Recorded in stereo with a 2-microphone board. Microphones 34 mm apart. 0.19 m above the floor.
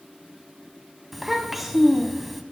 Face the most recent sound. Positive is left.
turn(degrees=-5)  # may be behind; listen again after turning